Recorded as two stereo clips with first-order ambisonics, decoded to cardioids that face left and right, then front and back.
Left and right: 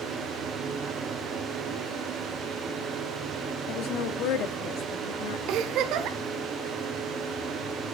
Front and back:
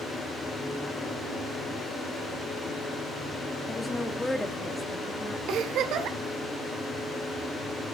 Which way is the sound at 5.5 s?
135° right.